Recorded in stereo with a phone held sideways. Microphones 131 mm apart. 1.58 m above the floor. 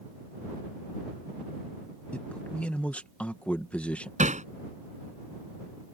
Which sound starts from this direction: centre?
A man speaking, at 2.1 s.